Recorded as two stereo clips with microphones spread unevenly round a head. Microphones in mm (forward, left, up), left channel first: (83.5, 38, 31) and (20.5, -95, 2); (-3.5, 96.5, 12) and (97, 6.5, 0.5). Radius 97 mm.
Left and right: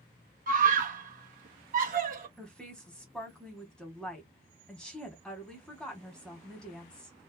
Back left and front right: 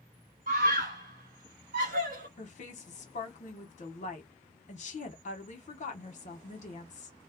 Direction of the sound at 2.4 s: 160° left.